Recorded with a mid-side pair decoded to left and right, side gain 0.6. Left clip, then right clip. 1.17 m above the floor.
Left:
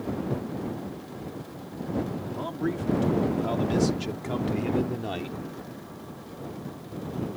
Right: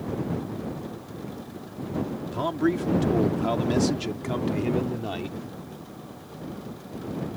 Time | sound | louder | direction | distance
2.3 | a man speaking | right 7 dB | 40° right | ?